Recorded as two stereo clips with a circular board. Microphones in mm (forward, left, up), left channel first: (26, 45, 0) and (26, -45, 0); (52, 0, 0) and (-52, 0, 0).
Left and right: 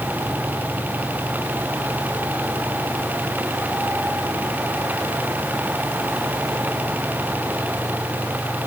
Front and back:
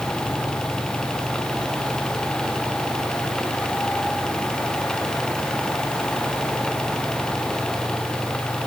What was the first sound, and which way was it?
Only background noise.